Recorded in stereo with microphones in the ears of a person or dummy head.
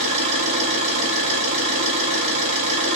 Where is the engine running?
35° right (ahead or behind), 1.1 m.